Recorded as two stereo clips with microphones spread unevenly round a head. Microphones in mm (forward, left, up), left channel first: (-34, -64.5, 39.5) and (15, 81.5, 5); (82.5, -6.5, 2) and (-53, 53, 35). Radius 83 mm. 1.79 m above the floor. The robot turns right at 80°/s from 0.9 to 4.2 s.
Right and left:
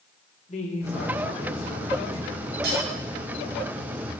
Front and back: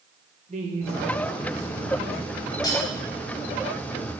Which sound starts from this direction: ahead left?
Cutlery clinking, at 2.6 s.